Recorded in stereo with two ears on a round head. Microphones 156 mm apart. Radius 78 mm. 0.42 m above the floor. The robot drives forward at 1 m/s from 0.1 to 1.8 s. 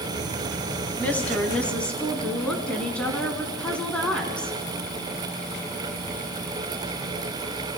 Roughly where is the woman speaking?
Centre.